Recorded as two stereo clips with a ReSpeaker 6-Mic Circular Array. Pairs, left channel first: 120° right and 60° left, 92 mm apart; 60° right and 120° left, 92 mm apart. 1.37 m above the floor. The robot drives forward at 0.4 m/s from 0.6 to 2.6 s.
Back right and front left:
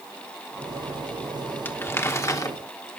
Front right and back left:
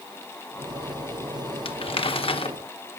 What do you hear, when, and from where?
1.6 s crumpling: 50° right, 1.1 m; by 2.6 s 70° right, 0.9 m